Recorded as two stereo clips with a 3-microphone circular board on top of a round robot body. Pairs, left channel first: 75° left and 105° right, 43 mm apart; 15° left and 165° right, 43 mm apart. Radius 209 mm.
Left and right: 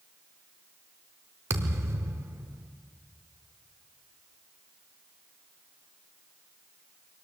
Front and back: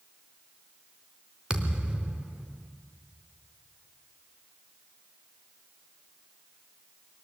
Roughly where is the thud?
Right.